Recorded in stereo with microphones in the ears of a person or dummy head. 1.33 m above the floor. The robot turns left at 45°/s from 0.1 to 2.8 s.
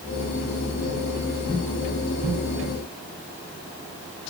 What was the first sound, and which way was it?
Only background noise.